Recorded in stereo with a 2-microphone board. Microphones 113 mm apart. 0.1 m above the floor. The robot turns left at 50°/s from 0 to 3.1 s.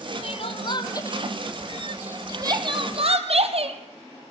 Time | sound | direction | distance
0.2 | crying | 65° left (ahead or behind) | 2.0 m